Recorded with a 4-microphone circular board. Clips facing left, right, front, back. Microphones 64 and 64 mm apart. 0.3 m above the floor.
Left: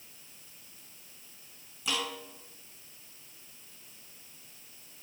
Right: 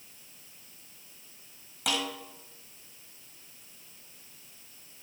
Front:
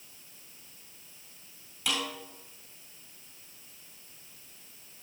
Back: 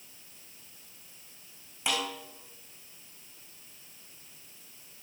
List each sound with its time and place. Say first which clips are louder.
1.9 s a snare drum: right 2 dB, back 1 dB; 115° right, 6 m